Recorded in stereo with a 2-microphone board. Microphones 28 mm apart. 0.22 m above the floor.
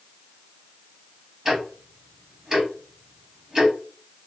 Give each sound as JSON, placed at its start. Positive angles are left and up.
{"t": 1.4, "sound": "ticking", "side_deg": -15, "distance_m": 1.1}